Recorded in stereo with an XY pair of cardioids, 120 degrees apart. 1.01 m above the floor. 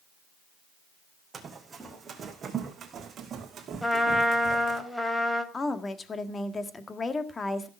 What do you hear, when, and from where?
1.3 s running footsteps: 25° right, 3.5 m; by 4.8 s 55° right, 4.5 m
3.8 s a trumpet: 5° left, 2.5 m
5.5 s a woman speaking: 25° left, 1.7 m